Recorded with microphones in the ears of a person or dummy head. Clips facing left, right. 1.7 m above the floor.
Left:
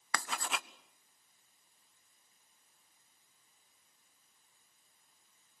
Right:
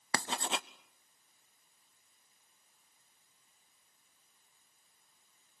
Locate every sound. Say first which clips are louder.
0.1 s writing: right 3 dB; 25° right (ahead or behind), 0.6 m